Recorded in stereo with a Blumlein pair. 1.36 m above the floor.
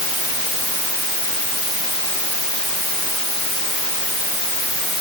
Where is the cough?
No cough in this recording.